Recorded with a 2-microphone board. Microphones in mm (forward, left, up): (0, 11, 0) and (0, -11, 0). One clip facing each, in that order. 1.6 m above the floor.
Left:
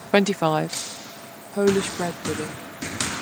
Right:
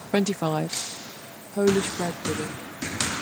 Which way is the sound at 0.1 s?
45° left (ahead or behind).